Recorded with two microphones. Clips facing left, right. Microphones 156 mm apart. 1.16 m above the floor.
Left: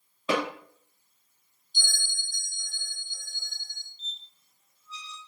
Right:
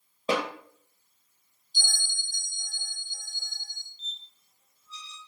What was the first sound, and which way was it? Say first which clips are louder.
A snare drum: even; 35° right (ahead or behind).